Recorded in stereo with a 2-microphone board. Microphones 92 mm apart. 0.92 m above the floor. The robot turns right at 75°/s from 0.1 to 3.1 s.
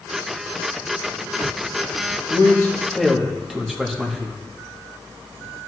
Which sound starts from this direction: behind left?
A man speaking, at 2.3 s.